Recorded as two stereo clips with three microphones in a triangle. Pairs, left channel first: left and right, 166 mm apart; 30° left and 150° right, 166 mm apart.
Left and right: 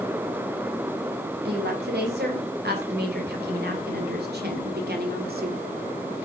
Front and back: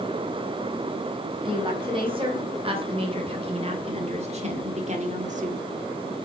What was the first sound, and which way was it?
A woman speaking, 90° right.